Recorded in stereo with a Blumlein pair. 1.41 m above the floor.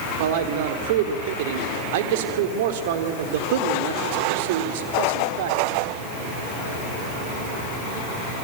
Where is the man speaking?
50° right, 3.5 m.